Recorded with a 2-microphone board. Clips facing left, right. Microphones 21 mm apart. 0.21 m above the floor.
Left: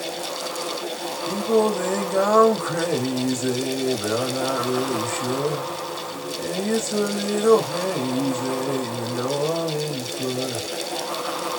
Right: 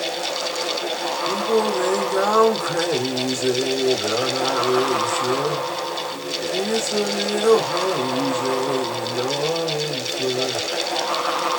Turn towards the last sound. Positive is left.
turn(degrees=-45)  # may be behind; listen again after turning